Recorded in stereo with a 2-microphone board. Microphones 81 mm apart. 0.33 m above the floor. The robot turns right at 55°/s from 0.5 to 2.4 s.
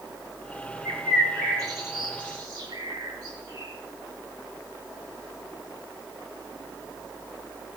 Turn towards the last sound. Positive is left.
turn(degrees=-75)  # may be behind; listen again after turning